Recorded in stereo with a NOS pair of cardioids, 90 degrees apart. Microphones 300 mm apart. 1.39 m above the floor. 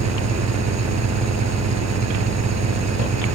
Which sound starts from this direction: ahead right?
An engine running, at 0.0 s.